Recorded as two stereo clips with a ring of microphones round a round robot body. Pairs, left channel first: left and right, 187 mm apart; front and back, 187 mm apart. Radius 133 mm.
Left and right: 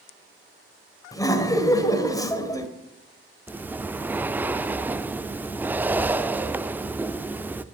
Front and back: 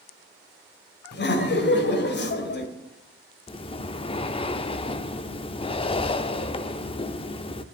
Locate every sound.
1.1 s laughter: 20° left, 2.5 m
3.5 s breathing: 20° right, 0.5 m